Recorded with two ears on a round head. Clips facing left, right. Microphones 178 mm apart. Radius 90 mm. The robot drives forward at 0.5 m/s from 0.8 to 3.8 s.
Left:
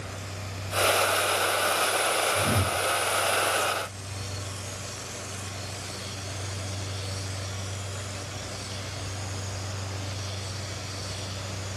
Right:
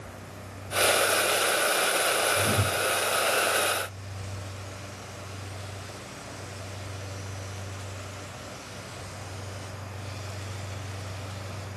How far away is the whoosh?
About 1.0 m.